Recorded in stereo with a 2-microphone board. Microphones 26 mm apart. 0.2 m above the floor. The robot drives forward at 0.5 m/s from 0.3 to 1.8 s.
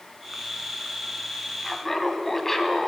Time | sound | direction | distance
1.6 | laughter | 15° left (ahead or behind) | 1.3 m